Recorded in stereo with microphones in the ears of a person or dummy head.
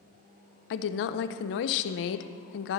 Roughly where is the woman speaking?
Left.